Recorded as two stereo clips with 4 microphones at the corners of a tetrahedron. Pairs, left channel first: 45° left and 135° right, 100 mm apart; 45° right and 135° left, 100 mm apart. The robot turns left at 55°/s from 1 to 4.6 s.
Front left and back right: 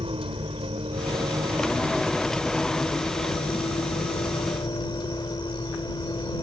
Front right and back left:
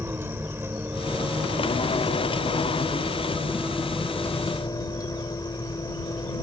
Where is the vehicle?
160° right; by 6.4 s 5° left.